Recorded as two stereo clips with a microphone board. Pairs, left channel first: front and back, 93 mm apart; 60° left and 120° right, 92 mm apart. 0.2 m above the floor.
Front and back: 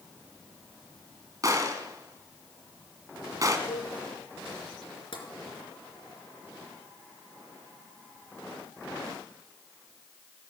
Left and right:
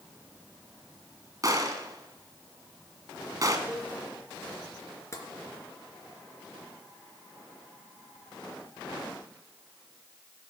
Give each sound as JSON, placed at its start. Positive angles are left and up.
{"t": 1.4, "sound": "a gunshot", "azimuth_deg": -150, "distance_m": 1.7}
{"t": 3.7, "sound": "a cowbell", "azimuth_deg": -45, "distance_m": 9.5}
{"t": 5.1, "sound": "tapping", "azimuth_deg": 5, "distance_m": 3.0}